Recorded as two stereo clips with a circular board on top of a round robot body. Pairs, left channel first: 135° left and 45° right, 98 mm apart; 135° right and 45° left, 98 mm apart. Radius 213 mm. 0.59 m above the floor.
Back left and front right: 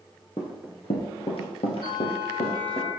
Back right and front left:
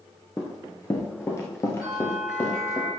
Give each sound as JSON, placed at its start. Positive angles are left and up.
{"t": 0.4, "sound": "running footsteps", "azimuth_deg": 170, "distance_m": 0.5}
{"t": 1.8, "sound": "a bell", "azimuth_deg": 120, "distance_m": 5.0}